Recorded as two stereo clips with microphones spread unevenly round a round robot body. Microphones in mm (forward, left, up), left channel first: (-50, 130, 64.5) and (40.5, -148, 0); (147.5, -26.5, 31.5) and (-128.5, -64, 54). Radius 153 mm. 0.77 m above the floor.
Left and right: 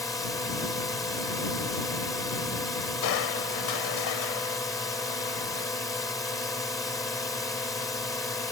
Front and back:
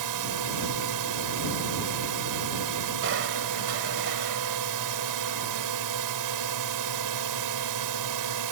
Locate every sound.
0.0 s a drone: 170° right
3.0 s crushing: 135° left